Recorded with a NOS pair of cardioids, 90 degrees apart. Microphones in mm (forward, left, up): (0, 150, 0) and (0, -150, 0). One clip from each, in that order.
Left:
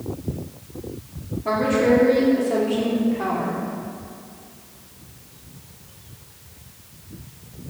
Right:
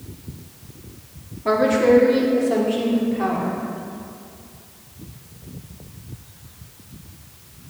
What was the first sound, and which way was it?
A woman speaking, 20° right.